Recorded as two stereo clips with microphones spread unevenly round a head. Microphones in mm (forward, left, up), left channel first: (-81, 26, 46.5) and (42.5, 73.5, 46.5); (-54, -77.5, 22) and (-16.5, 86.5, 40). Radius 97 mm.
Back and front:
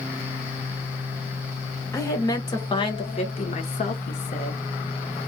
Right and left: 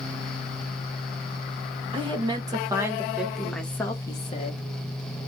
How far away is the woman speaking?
About 1.6 m.